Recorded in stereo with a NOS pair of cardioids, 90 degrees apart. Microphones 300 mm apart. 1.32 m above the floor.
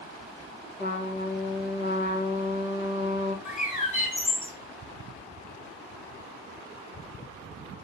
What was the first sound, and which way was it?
A trumpet, 35° left.